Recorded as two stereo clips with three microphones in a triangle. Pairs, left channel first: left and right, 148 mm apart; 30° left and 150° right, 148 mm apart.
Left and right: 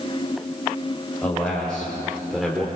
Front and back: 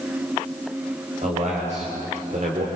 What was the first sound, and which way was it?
A man speaking, 170° left.